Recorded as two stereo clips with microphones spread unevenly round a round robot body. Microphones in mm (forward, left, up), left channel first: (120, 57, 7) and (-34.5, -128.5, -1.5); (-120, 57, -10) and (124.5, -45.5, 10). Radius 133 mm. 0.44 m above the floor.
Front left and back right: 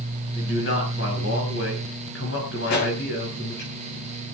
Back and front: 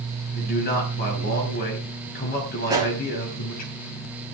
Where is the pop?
55° left, 8.5 m.